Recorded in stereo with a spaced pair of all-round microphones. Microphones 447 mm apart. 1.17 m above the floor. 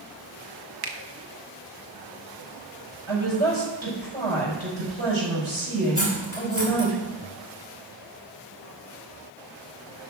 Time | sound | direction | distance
0.8 | a finger snap | 50° right (ahead or behind) | 0.9 m
3.1 | a woman speaking | 90° right | 5 m
6.0 | cutlery clinking | 25° left (ahead or behind) | 3 m